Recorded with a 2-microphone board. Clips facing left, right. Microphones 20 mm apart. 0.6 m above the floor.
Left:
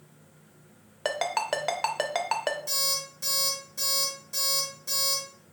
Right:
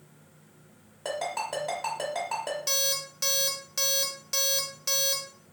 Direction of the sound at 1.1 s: 55° left (ahead or behind).